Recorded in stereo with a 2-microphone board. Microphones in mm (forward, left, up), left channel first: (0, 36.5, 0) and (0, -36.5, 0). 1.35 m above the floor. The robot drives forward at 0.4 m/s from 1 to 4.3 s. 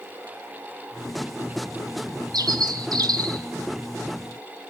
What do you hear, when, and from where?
2.3 s a bird: 75° right (ahead or behind), 1.6 m